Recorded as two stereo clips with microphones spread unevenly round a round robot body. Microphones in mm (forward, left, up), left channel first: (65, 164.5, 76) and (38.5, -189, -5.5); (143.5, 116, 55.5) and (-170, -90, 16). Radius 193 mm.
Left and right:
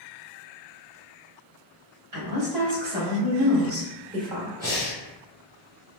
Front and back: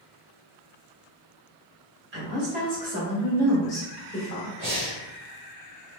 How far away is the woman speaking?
About 1.5 m.